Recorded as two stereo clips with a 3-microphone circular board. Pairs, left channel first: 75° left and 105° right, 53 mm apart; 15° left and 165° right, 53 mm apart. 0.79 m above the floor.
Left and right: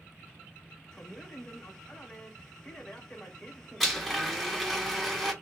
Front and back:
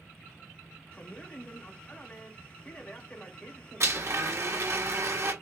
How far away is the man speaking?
About 0.9 m.